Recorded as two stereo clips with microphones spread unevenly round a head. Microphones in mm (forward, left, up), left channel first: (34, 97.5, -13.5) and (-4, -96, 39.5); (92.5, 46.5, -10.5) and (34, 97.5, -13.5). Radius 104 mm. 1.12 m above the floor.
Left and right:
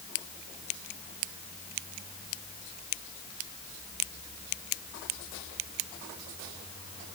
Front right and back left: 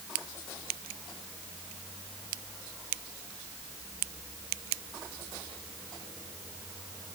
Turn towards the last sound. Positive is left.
No sound to turn to.